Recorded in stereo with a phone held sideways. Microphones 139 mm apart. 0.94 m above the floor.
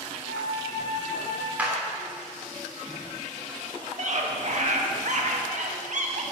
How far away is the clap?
About 2.5 m.